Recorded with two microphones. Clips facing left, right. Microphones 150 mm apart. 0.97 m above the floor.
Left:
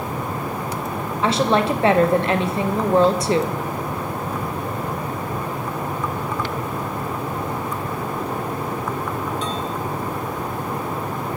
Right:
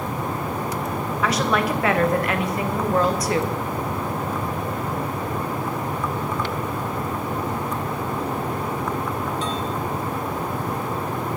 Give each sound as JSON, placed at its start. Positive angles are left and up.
{"t": 1.2, "sound": "a woman speaking", "side_deg": 25, "distance_m": 0.6}